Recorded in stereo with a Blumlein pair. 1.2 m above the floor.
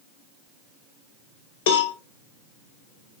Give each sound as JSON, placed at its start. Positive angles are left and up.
{"t": 1.7, "sound": "a cowbell", "azimuth_deg": 55, "distance_m": 0.5}